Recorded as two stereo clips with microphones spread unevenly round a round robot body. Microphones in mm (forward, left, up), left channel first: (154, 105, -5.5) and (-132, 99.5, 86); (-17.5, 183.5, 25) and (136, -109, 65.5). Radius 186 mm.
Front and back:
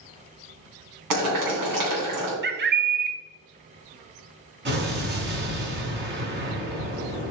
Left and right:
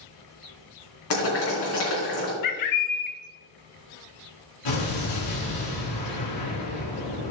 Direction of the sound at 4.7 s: 125° left.